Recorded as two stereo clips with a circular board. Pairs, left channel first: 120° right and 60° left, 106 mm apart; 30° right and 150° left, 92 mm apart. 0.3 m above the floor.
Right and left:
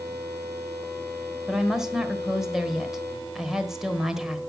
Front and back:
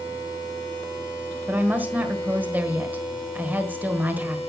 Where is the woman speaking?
135° left, 1.5 m.